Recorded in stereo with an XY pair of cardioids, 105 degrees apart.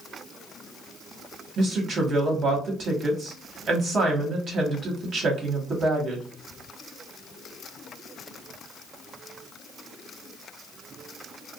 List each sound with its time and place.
1.6 s a woman speaking: 55° right, 1.2 m